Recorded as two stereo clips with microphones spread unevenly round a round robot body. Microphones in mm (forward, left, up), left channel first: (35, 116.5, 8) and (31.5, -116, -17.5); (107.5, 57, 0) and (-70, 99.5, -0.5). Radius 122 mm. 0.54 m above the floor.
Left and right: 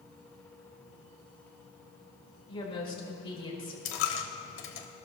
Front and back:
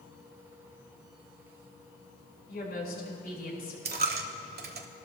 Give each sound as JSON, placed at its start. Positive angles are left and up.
{"t": 2.5, "sound": "a woman speaking", "azimuth_deg": 20, "distance_m": 5.0}
{"t": 3.9, "sound": "a dropped coin", "azimuth_deg": 130, "distance_m": 1.3}